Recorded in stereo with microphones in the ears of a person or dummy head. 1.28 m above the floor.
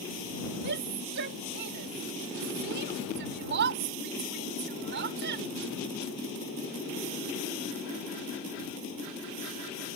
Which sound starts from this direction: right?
A shout, at 0.6 s.